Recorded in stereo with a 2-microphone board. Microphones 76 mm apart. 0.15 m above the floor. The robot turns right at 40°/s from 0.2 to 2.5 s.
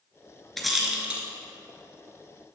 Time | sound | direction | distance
0.6 | a rattle | 5° left (ahead or behind) | 0.6 m